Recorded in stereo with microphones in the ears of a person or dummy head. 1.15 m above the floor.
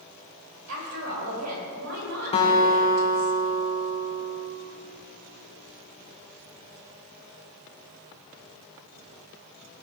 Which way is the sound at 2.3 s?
30° left (ahead or behind).